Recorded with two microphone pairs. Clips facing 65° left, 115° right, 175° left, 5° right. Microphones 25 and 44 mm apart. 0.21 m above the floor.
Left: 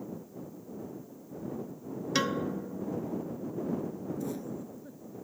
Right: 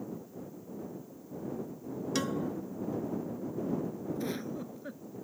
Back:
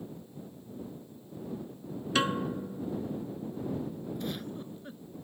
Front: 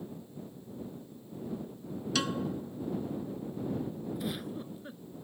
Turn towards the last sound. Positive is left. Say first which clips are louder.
# right 1 dB, even
turn(degrees=-85)